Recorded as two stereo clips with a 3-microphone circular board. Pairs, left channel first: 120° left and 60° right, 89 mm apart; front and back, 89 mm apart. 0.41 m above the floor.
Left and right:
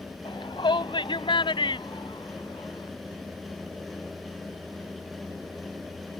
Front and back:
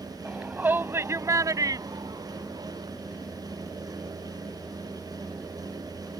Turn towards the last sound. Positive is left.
turn(degrees=150)